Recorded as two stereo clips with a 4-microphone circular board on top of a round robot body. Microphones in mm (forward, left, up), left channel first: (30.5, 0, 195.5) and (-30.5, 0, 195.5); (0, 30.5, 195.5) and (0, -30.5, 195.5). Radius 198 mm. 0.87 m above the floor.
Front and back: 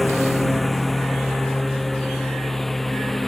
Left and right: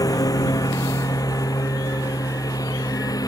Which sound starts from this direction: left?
A lawn mower, at 0.0 s.